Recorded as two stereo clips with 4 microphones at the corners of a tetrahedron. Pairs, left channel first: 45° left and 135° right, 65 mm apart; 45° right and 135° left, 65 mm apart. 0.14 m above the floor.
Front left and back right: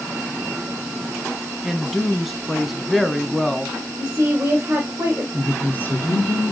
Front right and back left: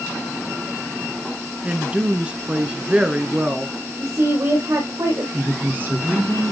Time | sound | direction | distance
1.6 | a woman speaking | 140° left | 1.0 m
4.0 | a woman speaking | 165° left | 3 m
5.3 | a woman speaking | 95° left | 2 m